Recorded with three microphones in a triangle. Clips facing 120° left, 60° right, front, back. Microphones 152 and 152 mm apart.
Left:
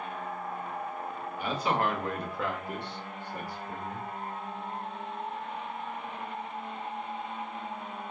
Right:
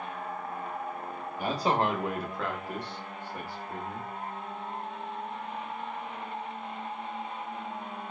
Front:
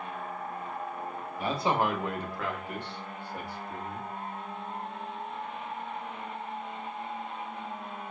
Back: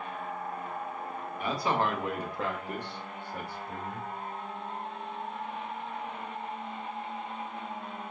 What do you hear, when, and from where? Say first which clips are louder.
1.4 s a man speaking: right 2 dB, front 1 dB; 45° right, 0.7 m; by 4.1 s 160° left, 1.3 m